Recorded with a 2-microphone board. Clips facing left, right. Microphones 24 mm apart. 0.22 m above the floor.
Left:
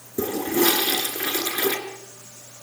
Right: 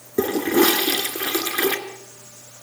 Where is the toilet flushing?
50° right (ahead or behind), 2.5 m.